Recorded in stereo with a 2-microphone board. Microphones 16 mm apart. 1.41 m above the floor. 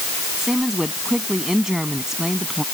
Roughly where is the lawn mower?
No lawn mower in this recording.